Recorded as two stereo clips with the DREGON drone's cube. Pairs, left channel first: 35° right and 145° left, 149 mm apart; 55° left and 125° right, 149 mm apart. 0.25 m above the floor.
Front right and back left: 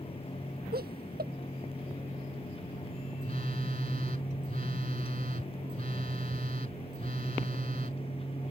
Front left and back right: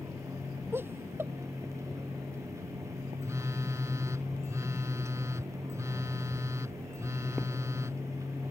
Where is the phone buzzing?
165° left.